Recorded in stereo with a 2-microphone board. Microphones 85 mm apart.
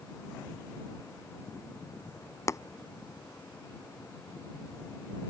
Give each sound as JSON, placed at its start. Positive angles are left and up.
{"t": 2.5, "sound": "tapping", "side_deg": 35}